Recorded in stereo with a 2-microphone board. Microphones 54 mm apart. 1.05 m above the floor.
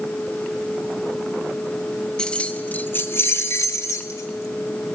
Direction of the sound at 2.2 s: 15° left (ahead or behind).